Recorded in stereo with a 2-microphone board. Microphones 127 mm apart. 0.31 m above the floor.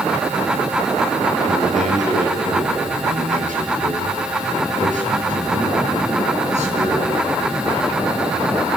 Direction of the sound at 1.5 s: 75° right (ahead or behind).